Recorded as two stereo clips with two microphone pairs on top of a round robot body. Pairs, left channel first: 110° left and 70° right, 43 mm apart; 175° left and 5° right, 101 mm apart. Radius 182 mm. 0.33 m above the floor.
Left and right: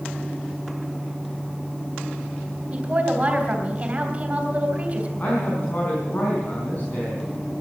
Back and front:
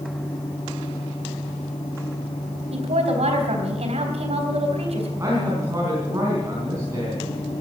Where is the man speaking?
55° left, 4.5 m.